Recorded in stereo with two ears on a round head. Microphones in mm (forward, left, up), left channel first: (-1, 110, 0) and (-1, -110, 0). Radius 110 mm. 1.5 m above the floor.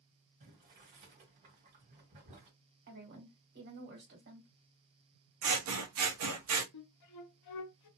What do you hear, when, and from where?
0.4 s boiling: 35° right (ahead or behind), 2 m
2.9 s a woman speaking: 45° right (ahead or behind), 1.7 m
5.4 s scissors: 65° right (ahead or behind), 0.9 m
6.7 s a flute: 80° left, 0.7 m